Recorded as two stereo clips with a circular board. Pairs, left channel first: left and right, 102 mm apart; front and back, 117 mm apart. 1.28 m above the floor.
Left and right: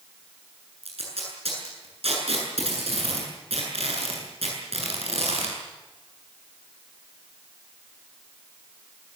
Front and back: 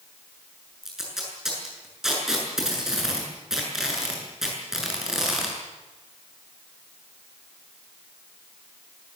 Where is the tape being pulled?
95° right, 8 m.